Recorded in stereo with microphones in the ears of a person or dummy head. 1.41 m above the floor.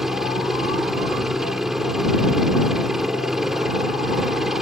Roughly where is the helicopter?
Centre.